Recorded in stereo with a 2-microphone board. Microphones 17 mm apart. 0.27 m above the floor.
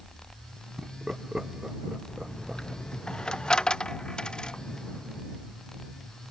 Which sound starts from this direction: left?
A dropped coin, at 2.1 s.